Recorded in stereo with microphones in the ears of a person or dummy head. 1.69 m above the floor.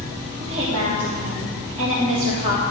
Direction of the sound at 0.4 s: 30° right (ahead or behind).